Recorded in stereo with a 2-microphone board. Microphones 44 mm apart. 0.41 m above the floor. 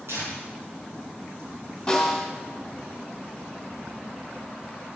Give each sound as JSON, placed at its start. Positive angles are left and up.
{"t": 0.1, "sound": "tearing paper", "side_deg": -70, "distance_m": 4.5}
{"t": 1.9, "sound": "a snare drum", "side_deg": 10, "distance_m": 3.0}